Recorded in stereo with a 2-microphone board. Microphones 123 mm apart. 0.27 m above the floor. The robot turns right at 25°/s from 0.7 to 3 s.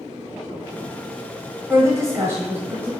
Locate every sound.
1.7 s a woman speaking: 25° right (ahead or behind), 1.0 m; by 2.9 s 20° right (ahead or behind), 1.0 m